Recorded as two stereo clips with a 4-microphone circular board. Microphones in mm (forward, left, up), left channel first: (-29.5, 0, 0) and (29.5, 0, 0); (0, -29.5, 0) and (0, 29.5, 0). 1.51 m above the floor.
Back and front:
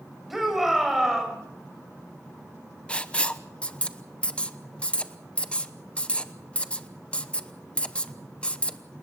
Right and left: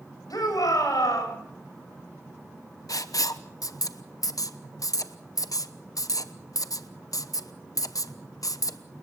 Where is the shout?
85° right, 7.5 m.